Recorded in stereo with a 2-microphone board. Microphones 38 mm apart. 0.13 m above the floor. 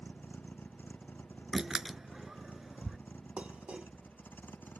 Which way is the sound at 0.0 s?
60° left (ahead or behind).